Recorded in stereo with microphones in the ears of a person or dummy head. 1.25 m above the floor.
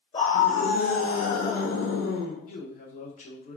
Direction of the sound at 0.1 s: 35° left (ahead or behind).